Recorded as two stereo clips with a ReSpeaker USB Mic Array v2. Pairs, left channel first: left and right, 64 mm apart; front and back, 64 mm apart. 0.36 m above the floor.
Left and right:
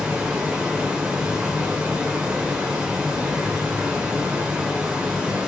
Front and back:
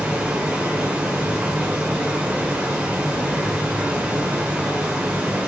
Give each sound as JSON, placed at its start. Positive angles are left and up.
{"t": 0.0, "sound": "running water", "azimuth_deg": -145, "distance_m": 1.1}